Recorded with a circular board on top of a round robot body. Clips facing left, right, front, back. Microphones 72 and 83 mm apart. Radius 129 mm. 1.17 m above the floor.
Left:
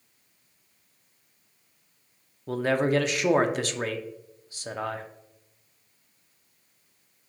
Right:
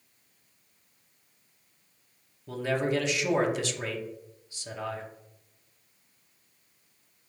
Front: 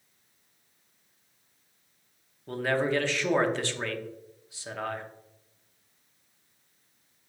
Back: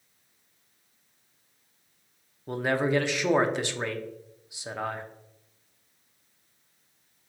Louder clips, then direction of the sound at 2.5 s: Left 4 dB, back 1 dB; 110° left.